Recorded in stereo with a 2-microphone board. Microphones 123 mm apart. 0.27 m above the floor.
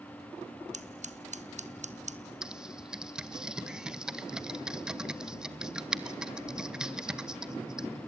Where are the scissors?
70° right (ahead or behind), 1.0 m.